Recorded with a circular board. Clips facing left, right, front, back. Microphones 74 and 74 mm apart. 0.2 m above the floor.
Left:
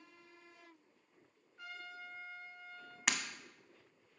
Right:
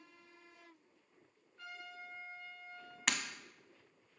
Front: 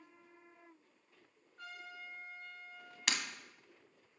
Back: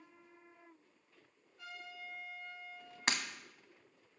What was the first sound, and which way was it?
A trumpet, 25° left.